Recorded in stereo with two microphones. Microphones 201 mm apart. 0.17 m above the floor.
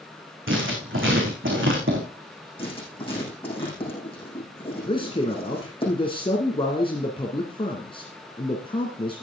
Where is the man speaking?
25° left (ahead or behind), 1.8 m.